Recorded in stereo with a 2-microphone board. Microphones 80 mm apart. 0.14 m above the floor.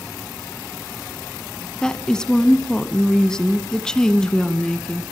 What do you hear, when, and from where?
1.8 s a woman speaking: 10° left (ahead or behind), 1.1 m